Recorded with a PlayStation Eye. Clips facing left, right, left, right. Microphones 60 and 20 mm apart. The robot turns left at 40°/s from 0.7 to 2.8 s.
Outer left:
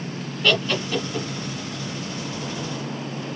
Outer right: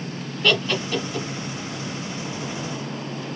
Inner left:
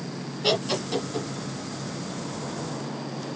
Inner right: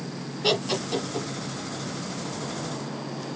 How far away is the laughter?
About 1.2 m.